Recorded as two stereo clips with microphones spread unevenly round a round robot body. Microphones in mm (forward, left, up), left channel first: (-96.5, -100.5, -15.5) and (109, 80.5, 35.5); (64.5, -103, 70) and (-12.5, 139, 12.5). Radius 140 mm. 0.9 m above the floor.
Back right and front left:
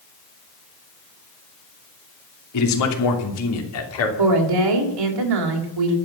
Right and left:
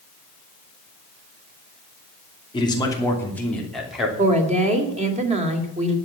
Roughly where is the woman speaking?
Ahead left.